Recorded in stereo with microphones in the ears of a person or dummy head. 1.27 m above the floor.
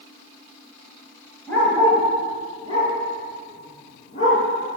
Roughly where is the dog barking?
Centre.